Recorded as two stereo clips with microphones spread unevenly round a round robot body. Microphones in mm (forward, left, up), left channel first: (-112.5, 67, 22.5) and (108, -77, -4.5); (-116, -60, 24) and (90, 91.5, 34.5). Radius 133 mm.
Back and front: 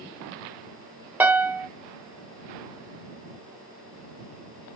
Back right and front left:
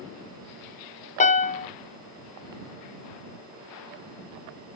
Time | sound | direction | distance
1.2 | a piano | 105° right | ?